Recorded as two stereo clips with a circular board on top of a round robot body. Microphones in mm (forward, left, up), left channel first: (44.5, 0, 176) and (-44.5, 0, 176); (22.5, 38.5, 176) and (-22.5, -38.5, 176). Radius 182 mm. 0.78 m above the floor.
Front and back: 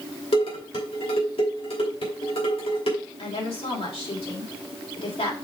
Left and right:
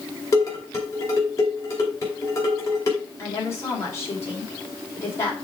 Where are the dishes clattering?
5° left, 3 m.